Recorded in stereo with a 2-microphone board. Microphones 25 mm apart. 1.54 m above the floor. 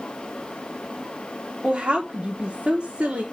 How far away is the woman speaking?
About 1.5 m.